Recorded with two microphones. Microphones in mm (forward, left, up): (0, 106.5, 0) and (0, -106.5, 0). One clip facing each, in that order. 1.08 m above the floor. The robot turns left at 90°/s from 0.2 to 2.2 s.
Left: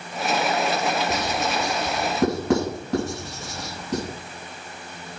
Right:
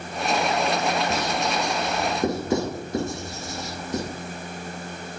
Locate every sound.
1.1 s writing: 10° left (ahead or behind), 7 m; by 4.0 s 70° left (ahead or behind), 7 m